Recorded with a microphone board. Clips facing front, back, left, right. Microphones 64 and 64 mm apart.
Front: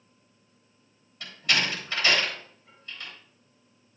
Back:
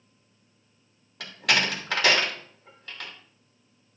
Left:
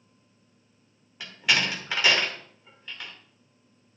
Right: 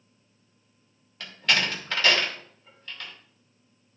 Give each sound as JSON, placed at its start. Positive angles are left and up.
{"t": 1.2, "sound": "a door slam", "azimuth_deg": 170, "distance_m": 2.5}